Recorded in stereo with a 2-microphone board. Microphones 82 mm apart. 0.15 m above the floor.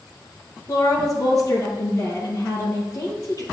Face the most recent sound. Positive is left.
turn(degrees=45)  # may be behind; listen again after turning